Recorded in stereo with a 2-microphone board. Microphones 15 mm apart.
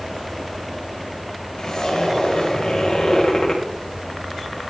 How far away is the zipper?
About 5 m.